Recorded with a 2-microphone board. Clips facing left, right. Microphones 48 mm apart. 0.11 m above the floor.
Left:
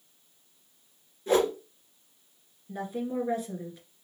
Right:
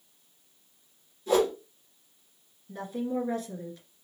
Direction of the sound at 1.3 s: 35° left (ahead or behind).